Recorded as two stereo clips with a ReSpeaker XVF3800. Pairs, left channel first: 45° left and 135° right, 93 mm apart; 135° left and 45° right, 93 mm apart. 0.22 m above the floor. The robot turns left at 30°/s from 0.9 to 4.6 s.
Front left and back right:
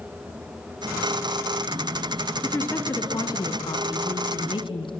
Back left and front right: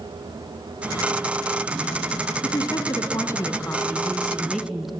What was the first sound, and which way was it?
A woman speaking, 110° left.